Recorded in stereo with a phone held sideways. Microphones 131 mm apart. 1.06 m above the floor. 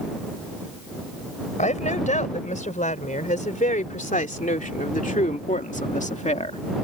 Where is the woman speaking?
70° left (ahead or behind); by 6.6 s 55° left (ahead or behind).